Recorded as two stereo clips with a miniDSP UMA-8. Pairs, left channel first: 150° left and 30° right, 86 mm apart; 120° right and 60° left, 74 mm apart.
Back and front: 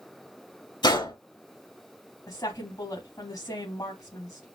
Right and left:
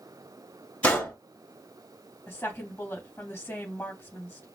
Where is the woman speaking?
175° left, 2.5 m.